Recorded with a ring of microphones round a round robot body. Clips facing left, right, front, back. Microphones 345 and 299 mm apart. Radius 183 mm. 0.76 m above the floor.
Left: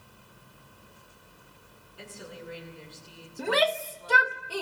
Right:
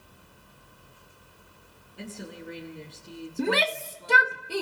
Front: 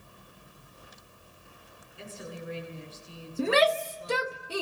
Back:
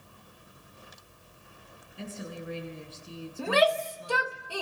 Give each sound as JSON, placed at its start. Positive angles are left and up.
{"t": 2.0, "sound": "a woman speaking", "azimuth_deg": -155, "distance_m": 8.5}
{"t": 3.4, "sound": "a shout", "azimuth_deg": -55, "distance_m": 1.1}